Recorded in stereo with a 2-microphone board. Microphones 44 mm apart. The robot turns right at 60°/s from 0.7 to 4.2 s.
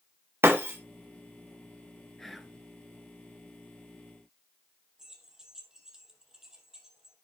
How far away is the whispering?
About 1.8 m.